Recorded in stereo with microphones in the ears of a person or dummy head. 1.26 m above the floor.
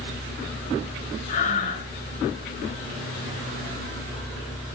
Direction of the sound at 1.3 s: 50° left (ahead or behind).